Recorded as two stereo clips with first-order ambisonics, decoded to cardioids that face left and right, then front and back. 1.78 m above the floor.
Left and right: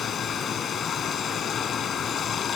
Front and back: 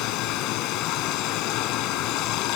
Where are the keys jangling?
I don't hear keys jangling.